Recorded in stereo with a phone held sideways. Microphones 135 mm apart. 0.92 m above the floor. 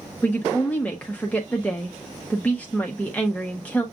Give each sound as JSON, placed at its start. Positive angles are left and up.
{"t": 0.2, "sound": "a woman speaking", "side_deg": 10, "distance_m": 0.7}